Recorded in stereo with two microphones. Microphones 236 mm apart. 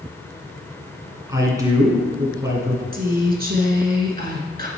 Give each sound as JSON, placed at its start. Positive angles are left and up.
{"t": 1.3, "sound": "a man speaking", "side_deg": -15, "distance_m": 1.7}
{"t": 2.9, "sound": "a woman speaking", "side_deg": -40, "distance_m": 1.8}